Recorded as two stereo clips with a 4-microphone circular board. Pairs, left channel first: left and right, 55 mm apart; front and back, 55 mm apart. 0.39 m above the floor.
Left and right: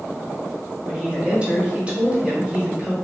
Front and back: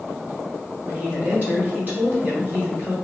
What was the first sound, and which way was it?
A woman speaking, 150° right.